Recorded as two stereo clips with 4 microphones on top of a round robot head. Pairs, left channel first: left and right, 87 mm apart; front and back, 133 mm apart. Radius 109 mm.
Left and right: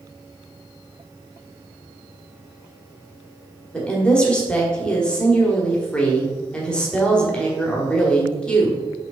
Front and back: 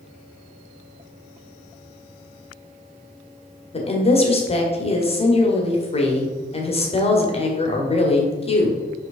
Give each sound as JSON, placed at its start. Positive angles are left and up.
{"t": 3.7, "sound": "a woman speaking", "azimuth_deg": 15, "distance_m": 1.6}